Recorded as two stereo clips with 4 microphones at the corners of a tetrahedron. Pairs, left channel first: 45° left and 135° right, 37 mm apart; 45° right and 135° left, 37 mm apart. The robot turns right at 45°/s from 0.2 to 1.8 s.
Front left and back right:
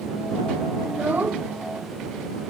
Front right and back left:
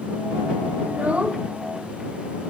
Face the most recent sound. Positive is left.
turn(degrees=-145)